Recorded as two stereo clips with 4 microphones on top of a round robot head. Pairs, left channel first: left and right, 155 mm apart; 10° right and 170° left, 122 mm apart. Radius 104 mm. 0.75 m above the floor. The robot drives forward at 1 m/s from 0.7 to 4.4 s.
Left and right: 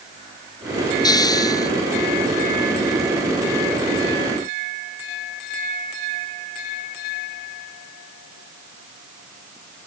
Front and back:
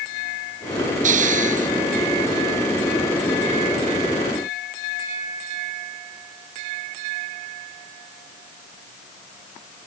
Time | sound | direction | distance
1.0 | a hiss | 155° left | ?